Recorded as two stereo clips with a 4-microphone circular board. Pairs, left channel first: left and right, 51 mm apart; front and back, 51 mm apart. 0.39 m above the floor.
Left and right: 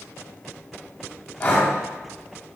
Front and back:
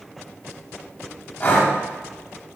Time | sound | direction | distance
1.4 | breathing | 35° left | 1.8 m